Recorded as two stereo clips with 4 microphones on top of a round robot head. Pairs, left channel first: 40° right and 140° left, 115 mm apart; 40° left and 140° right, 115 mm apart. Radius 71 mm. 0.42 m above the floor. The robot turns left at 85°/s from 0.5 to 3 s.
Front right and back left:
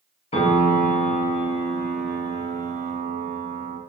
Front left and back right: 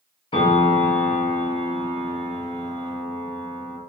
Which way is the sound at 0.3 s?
5° right.